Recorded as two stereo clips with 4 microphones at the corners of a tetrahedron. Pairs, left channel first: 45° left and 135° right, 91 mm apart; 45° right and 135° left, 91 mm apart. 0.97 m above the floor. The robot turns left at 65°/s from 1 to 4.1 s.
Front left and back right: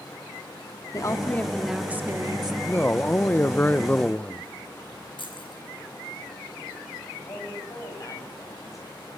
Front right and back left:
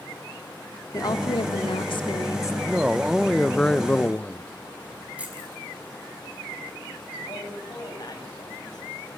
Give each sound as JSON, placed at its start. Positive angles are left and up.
{"t": 0.9, "sound": "a woman speaking", "azimuth_deg": 0, "distance_m": 1.9}
{"t": 2.7, "sound": "a man speaking", "azimuth_deg": 85, "distance_m": 0.6}
{"t": 5.2, "sound": "keys jangling", "azimuth_deg": 60, "distance_m": 5.5}
{"t": 7.3, "sound": "a man speaking", "azimuth_deg": -5, "distance_m": 6.0}